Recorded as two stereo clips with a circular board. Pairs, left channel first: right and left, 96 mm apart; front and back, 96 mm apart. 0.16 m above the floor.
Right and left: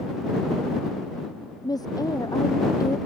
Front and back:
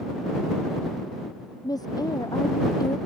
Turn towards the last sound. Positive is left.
turn(degrees=-40)